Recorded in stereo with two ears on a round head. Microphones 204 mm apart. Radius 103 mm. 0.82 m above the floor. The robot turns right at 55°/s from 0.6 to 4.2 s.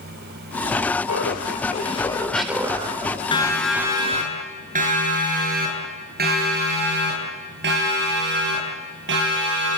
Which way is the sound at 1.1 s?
105° left.